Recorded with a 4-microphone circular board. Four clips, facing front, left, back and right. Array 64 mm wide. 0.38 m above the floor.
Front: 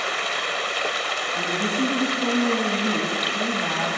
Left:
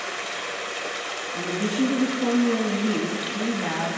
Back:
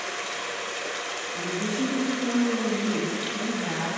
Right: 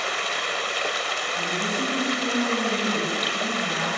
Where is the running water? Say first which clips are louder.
Right 4 dB, front 6 dB; 30° right, 1.2 m.